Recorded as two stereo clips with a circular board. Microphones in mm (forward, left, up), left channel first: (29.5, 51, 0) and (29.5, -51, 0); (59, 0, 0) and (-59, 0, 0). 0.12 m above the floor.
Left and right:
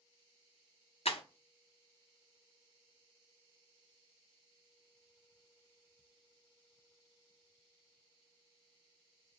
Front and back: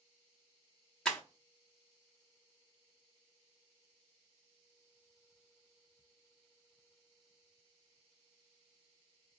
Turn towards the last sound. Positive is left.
turn(degrees=85)